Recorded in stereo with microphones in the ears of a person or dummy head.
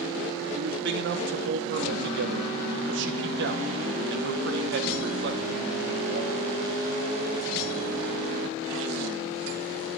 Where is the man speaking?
65° right (ahead or behind), 1.2 m.